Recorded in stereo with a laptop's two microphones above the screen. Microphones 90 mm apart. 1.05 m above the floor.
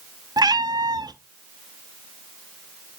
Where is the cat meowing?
50° right (ahead or behind), 0.6 m.